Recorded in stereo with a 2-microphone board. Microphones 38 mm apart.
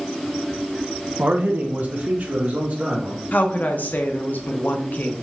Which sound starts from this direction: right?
A man speaking, at 1.2 s.